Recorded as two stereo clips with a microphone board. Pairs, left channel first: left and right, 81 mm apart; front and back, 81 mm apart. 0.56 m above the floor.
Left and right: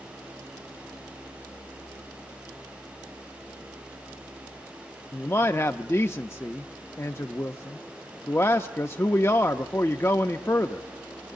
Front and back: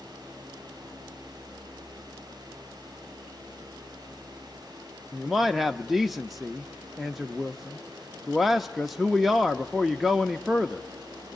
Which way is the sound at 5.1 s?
95° left.